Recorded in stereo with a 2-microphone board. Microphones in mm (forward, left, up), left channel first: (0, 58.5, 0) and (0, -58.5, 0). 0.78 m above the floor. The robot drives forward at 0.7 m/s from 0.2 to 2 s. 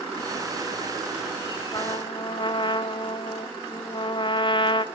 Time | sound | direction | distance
1.7 | a trumpet | 35° left (ahead or behind) | 0.6 m